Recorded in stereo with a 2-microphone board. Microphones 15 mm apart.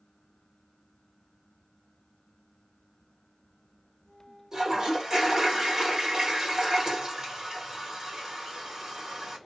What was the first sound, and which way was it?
A toilet flushing, 40° right (ahead or behind).